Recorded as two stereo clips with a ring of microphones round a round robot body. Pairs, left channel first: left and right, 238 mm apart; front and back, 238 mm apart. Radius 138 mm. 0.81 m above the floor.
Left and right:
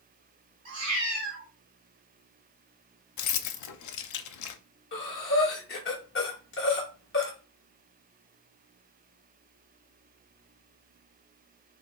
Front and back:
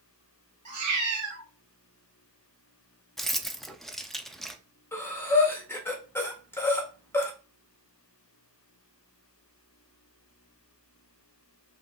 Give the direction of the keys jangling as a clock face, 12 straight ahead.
9 o'clock.